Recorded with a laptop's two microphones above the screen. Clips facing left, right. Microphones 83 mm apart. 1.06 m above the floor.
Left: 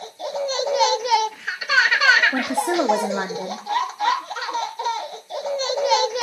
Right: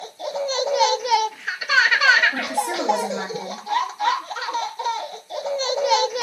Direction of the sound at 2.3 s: 35° left (ahead or behind).